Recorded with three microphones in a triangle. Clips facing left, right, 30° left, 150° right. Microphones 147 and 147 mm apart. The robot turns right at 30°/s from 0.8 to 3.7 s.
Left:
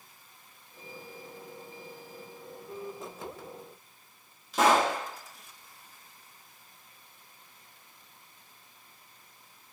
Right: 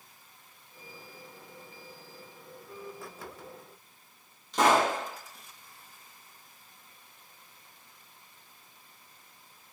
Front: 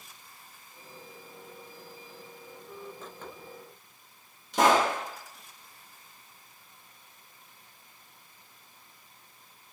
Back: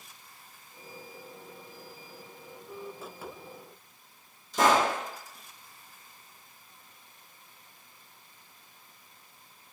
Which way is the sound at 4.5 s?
5° left.